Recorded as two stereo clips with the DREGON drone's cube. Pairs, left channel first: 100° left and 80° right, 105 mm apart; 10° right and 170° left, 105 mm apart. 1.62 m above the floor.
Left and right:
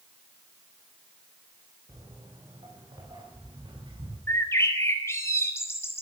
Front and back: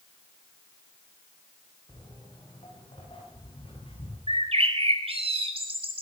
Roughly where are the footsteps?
Ahead right.